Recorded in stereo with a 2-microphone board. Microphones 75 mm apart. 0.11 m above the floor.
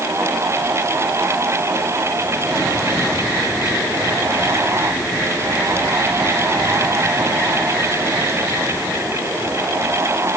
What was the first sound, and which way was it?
Only background noise.